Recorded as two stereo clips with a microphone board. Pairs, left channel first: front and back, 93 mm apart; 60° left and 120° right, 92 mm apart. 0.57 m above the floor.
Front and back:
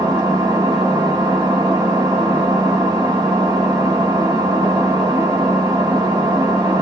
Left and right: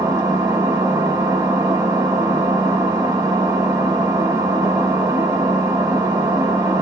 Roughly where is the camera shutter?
No camera shutter in this recording.